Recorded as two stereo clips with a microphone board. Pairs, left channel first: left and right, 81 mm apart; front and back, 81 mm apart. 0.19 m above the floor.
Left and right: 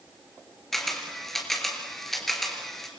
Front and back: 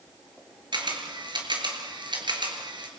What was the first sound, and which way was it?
A camera shutter, 175° left.